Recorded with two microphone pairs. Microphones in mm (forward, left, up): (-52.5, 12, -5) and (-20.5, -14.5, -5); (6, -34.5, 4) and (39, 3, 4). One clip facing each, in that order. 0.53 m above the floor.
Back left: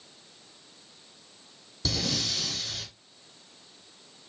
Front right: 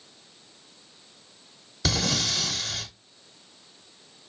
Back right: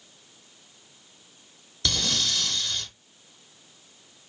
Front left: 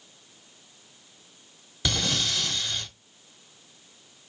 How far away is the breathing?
About 0.8 m.